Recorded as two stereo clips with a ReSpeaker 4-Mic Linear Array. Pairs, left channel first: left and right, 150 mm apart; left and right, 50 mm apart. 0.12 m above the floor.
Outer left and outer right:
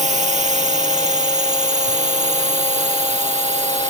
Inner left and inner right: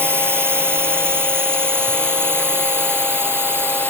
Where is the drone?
50° right (ahead or behind).